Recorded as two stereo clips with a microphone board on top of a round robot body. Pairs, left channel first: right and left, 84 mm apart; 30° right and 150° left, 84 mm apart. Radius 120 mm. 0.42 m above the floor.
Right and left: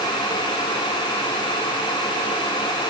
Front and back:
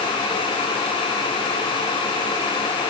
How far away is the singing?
No singing in this recording.